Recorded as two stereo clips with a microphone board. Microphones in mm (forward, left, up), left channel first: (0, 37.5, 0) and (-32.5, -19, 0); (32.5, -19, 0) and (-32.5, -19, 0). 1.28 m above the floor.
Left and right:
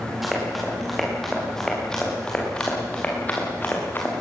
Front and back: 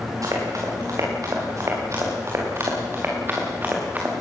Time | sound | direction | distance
0.2 | running footsteps | 150° left | 8.5 m